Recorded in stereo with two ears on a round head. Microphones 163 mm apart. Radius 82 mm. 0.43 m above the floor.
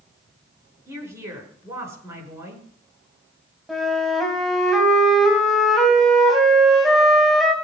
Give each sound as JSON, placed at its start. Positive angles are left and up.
{"t": 0.9, "sound": "a woman speaking", "side_deg": -15, "distance_m": 7.0}
{"t": 3.7, "sound": "a flute", "side_deg": 0, "distance_m": 3.0}